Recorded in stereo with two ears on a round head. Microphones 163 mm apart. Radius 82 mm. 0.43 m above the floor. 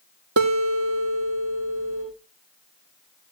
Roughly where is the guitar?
Right.